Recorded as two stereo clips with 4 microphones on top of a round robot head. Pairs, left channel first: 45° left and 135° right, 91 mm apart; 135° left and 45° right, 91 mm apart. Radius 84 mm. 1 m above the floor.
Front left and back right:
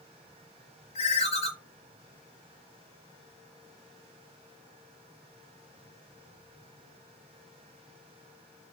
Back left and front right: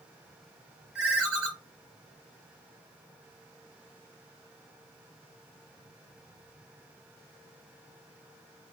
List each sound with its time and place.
0.9 s a ringtone: 35° left, 0.8 m